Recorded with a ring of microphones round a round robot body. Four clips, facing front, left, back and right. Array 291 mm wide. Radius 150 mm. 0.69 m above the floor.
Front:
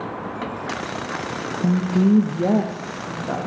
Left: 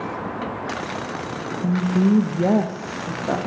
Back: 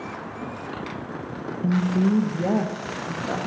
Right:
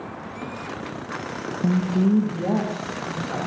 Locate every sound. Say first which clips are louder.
1.6 s a woman speaking: left 2 dB, front 3 dB; 30° right, 0.8 m; by 3.4 s 85° left, 1.4 m